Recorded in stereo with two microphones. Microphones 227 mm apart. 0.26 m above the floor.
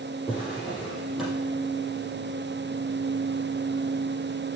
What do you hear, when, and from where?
0.3 s a drawer: centre (ahead or behind), 5.5 m